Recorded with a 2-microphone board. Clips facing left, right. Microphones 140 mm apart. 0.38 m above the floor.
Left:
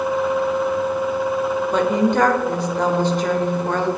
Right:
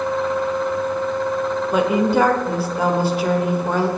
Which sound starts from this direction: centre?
A woman speaking, at 1.7 s.